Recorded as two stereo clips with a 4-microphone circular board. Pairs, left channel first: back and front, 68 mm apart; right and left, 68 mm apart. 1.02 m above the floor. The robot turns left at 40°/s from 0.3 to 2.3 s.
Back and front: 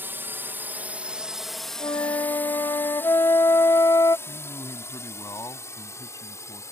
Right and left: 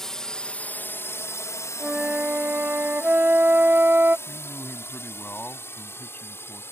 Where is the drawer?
I don't hear a drawer.